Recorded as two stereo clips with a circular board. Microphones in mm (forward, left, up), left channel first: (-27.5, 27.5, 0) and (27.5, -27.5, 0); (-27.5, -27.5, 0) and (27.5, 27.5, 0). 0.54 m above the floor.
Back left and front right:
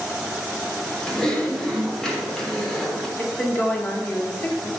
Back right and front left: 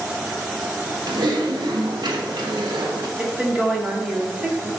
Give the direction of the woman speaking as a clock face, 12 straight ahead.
9 o'clock.